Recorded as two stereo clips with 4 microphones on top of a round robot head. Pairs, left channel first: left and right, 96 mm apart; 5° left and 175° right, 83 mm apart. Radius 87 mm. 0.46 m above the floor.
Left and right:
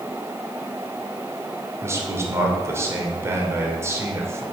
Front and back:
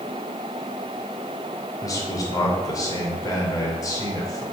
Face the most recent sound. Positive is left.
turn(degrees=-35)